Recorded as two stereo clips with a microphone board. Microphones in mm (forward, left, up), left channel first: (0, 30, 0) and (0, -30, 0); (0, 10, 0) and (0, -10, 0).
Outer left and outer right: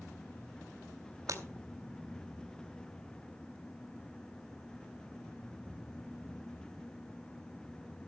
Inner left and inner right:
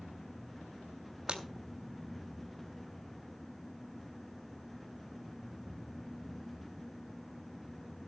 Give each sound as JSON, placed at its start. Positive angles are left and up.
{"t": 1.3, "sound": "breaking glass", "side_deg": -65, "distance_m": 3.0}